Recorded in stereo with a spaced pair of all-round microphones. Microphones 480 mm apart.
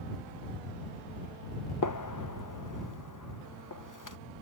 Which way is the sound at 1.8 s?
40° left (ahead or behind).